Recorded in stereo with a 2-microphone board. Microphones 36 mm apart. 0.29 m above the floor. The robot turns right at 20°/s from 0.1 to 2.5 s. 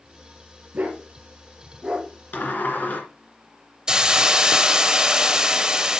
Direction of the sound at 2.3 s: 50° left (ahead or behind).